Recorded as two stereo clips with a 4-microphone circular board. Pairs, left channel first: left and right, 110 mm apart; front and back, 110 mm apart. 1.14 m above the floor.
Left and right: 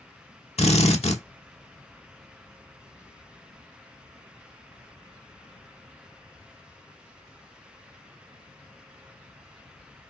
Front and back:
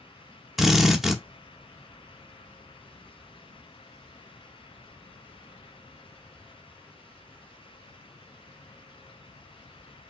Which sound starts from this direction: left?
A drill, at 0.6 s.